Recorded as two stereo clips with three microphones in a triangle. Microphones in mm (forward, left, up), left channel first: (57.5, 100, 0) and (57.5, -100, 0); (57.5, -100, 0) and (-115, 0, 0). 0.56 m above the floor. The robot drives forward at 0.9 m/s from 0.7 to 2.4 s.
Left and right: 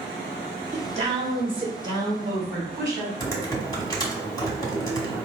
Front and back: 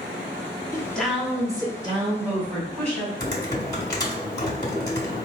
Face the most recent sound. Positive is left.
turn(degrees=30)